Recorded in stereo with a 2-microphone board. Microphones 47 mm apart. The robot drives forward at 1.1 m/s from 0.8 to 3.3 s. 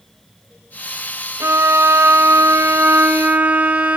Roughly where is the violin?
Right.